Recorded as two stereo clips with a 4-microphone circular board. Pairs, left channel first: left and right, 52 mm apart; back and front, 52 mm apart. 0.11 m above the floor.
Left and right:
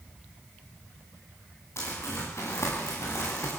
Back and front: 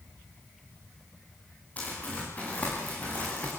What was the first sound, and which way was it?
Crumpling, 120° left.